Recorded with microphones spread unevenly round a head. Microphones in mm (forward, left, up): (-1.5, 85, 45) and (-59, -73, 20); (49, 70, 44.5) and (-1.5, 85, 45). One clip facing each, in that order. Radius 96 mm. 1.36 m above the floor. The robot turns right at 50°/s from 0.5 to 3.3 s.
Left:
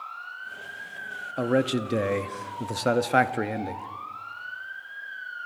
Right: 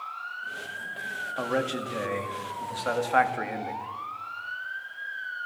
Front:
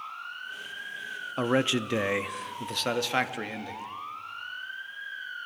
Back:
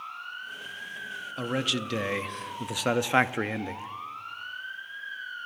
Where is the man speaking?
15° left, 0.6 m; by 3.9 s 110° left, 0.6 m.